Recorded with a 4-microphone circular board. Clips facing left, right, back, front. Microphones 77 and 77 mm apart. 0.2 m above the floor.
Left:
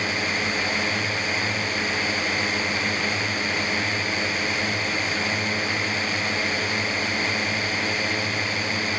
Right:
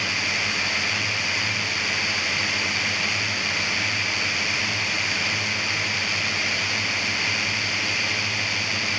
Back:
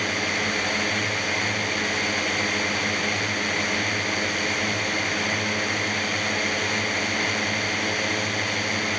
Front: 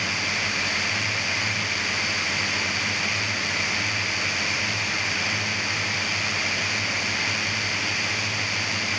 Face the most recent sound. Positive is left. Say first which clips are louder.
# left 2 dB, back 2 dB
turn(degrees=140)